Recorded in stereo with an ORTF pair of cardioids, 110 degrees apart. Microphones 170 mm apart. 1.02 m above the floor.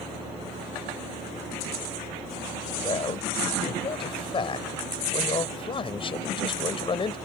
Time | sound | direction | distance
2.8 | a man speaking | 35° left | ?